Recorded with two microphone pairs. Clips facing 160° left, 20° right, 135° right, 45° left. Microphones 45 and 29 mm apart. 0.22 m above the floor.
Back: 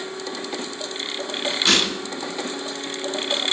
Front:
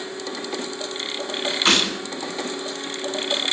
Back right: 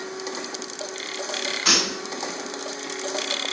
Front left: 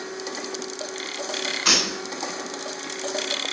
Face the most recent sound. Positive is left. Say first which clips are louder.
# front 1 dB, even
turn(degrees=-40)